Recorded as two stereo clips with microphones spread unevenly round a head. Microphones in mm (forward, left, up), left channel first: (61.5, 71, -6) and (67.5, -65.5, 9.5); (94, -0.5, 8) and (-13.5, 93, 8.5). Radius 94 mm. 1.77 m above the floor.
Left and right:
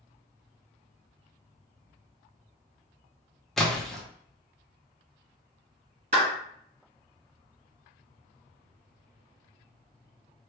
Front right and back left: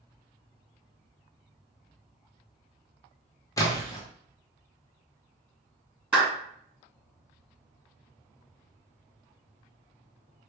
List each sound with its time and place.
3.6 s a splash: 10° right, 0.9 m
6.1 s a clap: 140° right, 1.8 m